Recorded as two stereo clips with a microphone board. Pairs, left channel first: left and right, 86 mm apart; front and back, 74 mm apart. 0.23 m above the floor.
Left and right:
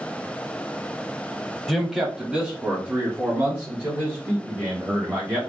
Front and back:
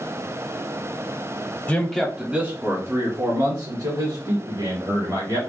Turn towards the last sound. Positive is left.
turn(degrees=-160)